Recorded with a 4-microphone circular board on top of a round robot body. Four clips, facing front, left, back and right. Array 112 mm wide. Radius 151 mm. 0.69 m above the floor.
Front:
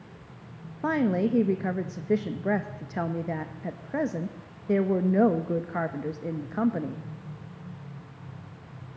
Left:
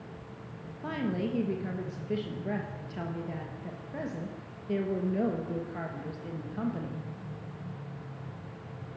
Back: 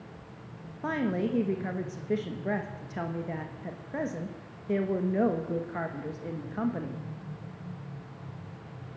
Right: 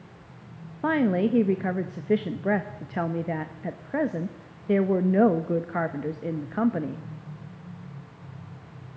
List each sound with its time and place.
0.8 s a woman speaking: 65° right, 1.2 m